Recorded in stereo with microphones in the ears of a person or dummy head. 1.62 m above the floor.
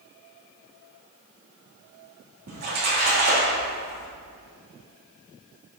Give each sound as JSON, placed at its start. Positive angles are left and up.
{"t": 2.5, "sound": "a splash", "side_deg": -50, "distance_m": 3.0}